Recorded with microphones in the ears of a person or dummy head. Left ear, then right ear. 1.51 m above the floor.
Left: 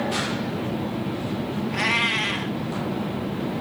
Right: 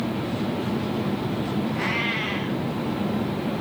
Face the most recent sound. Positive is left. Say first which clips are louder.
# left 5 dB
turn(degrees=55)  # may be behind; listen again after turning